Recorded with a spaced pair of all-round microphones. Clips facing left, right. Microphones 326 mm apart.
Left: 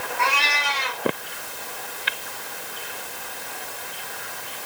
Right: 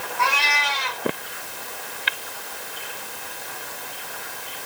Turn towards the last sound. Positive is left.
turn(degrees=-45)  # may be behind; listen again after turning